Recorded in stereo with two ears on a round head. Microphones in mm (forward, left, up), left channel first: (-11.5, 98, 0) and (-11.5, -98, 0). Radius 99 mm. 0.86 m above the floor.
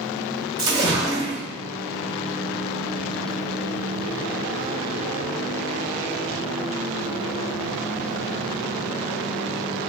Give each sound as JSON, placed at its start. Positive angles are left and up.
{"t": 0.6, "sound": "a splash", "side_deg": -20, "distance_m": 1.3}